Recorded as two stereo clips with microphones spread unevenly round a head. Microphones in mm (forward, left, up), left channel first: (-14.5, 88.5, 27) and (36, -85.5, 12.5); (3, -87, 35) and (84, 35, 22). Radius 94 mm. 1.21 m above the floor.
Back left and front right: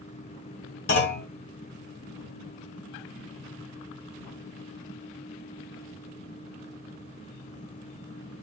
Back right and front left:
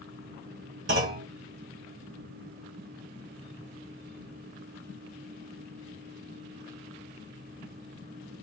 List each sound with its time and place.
0.9 s a clunk: 85° left, 2.5 m